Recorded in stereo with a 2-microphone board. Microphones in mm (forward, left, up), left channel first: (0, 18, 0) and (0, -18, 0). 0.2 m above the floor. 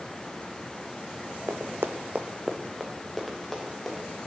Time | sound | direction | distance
1.5 | running footsteps | 70° right (ahead or behind) | 0.9 m